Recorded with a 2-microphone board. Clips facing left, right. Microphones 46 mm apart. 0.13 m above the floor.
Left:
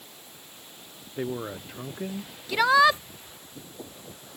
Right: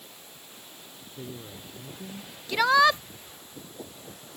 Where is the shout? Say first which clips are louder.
Left 1 dB; 5° left (ahead or behind).